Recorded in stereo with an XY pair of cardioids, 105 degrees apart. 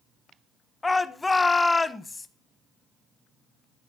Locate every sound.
0.8 s a shout: 20° left, 0.9 m